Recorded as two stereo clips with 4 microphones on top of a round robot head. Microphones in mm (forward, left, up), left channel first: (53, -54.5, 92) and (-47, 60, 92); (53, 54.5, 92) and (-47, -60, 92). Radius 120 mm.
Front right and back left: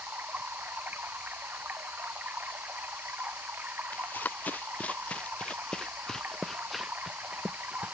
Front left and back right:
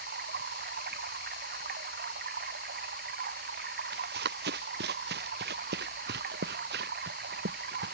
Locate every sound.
0.0 s running water: 150° right
3.9 s running footsteps: 130° right; by 8.0 s 150° right